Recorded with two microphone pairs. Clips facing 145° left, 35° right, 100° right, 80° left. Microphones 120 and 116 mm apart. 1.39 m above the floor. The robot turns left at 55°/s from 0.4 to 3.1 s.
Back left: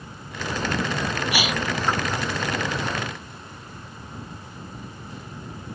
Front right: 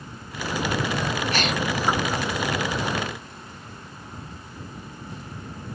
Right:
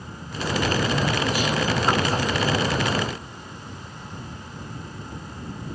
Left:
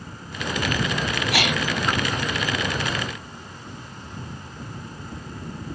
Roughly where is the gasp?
Left.